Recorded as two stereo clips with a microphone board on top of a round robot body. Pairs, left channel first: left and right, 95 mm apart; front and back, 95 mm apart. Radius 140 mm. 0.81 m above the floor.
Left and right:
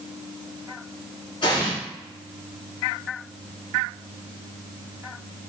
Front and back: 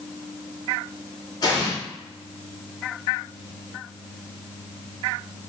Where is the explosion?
50° left, 1.4 m.